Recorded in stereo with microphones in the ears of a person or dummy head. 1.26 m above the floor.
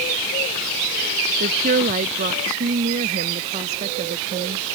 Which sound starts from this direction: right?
A woman speaking, at 1.4 s.